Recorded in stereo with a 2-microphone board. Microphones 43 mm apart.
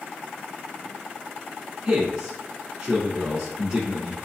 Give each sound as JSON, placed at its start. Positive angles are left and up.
{"t": 1.9, "sound": "a man speaking", "side_deg": -15, "distance_m": 1.0}